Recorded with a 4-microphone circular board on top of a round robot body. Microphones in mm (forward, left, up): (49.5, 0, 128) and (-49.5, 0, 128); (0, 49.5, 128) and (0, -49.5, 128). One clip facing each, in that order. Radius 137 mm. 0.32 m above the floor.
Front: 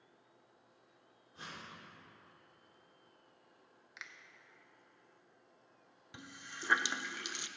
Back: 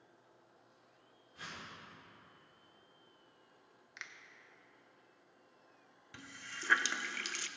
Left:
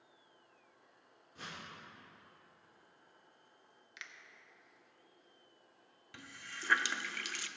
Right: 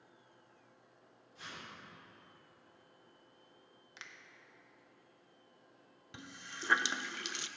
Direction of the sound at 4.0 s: 85° right.